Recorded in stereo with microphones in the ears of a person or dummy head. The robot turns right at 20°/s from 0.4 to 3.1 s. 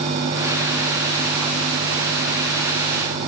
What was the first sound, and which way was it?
Only background noise.